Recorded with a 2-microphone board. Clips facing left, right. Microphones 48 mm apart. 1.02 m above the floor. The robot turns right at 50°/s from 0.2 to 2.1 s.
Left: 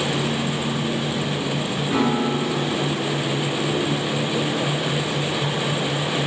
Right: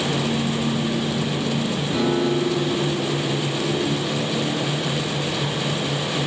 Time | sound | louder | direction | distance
1.9 | a piano | even | 35° left (ahead or behind) | 5 m